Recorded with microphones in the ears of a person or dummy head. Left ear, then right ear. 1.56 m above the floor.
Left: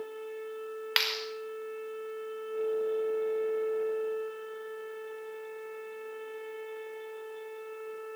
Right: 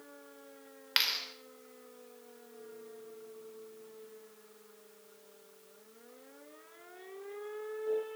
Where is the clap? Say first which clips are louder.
Left 1 dB; 15° left (ahead or behind), 4.5 m.